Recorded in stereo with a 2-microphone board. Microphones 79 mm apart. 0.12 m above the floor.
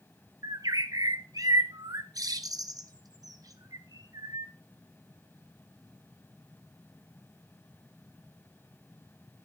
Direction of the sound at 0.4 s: 50° right (ahead or behind).